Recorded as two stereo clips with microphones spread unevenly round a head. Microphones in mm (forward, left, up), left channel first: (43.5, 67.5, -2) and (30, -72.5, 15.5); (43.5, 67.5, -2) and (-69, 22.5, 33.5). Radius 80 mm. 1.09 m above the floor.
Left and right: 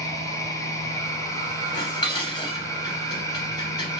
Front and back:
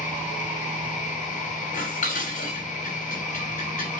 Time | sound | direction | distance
0.0 | a machine running | 20° left | 1.8 m
1.7 | dishes clattering | 25° left | 4 m